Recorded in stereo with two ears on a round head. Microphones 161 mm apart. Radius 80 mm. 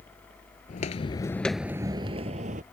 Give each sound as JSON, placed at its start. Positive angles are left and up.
{"t": 0.7, "sound": "footsteps", "side_deg": 45}